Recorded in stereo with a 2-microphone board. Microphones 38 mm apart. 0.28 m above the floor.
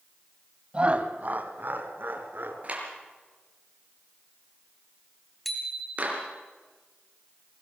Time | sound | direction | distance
0.7 | laughter | 30° right (ahead or behind) | 1.4 m
2.6 | a clap | 35° right (ahead or behind) | 5 m
5.5 | a bicycle bell | 5° left (ahead or behind) | 4 m